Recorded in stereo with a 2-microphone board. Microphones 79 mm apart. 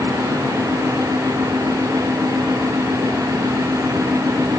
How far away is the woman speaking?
No woman speaking in this recording.